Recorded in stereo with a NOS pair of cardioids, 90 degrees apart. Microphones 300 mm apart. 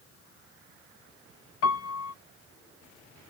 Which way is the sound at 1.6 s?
50° left.